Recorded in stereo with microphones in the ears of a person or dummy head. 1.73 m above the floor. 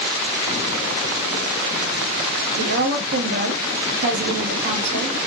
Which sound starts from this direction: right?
A woman speaking, at 2.6 s.